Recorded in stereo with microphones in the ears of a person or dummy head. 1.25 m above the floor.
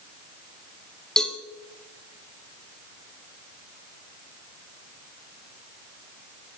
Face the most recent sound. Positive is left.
turn(degrees=0)  # may be behind; listen again after turning